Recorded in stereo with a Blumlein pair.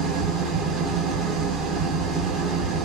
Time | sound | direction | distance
0.0 | an engine running | 20° right | 0.7 m